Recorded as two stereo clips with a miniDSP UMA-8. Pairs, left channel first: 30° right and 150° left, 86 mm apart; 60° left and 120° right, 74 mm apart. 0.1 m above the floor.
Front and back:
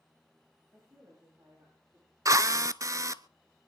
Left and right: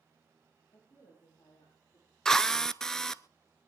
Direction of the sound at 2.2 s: 140° left.